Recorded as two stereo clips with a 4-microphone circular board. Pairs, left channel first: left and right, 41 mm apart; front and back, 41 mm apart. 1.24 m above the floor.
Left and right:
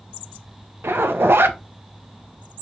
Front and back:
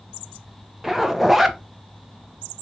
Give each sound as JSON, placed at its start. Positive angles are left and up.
{"t": 0.8, "sound": "a zipper", "azimuth_deg": -100, "distance_m": 0.6}